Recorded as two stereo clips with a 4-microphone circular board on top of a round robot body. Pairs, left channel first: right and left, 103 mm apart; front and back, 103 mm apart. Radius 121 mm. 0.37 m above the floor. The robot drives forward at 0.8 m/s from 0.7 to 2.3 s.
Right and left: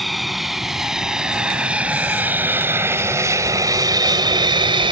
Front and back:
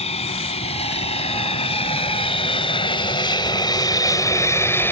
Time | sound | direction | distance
0.0 | an aircraft | straight ahead | ?